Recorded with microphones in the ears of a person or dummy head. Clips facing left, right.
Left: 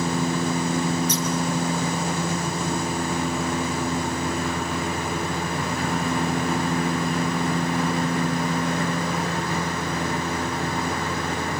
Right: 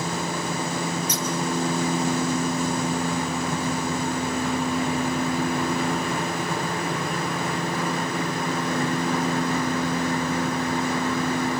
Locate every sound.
1.1 s scissors: 10° right (ahead or behind), 2.5 m